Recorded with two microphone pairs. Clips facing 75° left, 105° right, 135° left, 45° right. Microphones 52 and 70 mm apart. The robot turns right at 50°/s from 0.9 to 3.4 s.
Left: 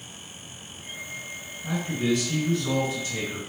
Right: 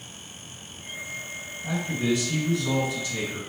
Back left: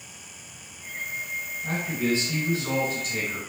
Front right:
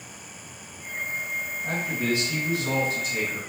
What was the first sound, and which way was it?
A man speaking, 40° left.